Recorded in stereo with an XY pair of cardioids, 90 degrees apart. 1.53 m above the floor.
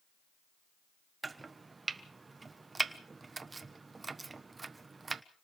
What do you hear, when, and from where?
1.2 s chopping: 30° right, 1.2 m